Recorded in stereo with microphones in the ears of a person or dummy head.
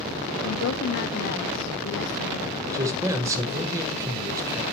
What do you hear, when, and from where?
0.4 s a woman speaking: 65° left (ahead or behind), 0.6 m
2.7 s a man speaking: 20° right (ahead or behind), 1.0 m